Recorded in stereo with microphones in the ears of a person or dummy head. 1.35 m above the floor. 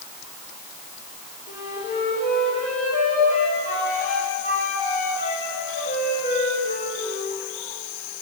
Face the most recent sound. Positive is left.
turn(degrees=40)  # may be behind; listen again after turning